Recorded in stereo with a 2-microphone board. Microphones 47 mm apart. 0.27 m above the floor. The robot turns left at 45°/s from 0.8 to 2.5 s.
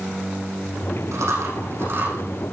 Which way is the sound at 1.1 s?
85° right.